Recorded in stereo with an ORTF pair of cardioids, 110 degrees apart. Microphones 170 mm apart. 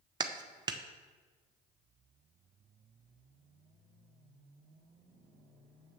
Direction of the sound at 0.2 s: 25° right.